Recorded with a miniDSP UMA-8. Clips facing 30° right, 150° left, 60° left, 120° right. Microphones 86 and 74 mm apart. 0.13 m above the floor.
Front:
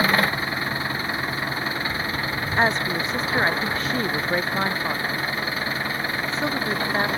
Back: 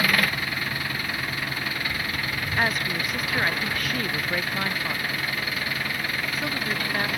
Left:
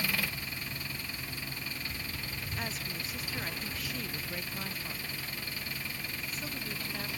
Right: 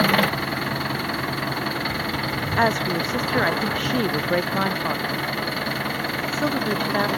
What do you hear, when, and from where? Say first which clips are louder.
0.0 s an engine running: front 3 dB, right 16 dB; 95° right
2.6 s a woman speaking: front 4 dB, right 21 dB; 95° right